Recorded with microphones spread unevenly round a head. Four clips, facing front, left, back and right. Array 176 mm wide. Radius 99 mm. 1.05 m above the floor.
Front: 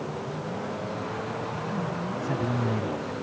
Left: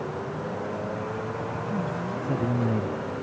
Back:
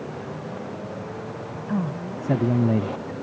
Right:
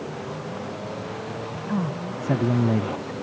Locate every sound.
1.7 s a man speaking: 155° right; by 3.1 s 160° right